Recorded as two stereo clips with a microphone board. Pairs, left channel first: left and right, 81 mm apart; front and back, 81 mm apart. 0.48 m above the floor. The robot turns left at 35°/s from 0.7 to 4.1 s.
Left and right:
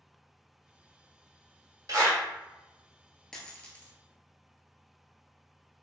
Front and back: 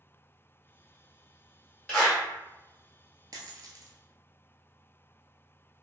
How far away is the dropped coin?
About 0.7 m.